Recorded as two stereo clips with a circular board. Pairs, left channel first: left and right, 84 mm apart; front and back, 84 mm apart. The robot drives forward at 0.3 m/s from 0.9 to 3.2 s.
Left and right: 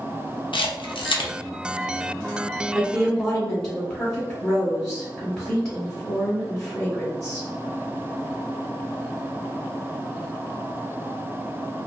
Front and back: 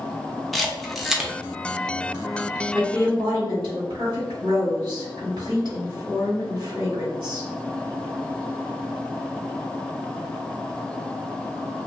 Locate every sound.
0.5 s a camera shutter: 85° left, 0.6 m; by 1.3 s 100° left, 0.6 m
2.7 s a woman speaking: straight behind, 1.7 m